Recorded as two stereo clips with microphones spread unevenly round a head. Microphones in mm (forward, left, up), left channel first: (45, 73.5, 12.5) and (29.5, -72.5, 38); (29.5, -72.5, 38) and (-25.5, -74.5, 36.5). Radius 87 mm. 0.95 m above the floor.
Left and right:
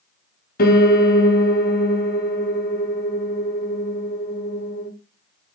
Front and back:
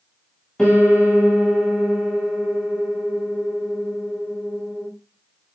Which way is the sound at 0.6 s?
85° left.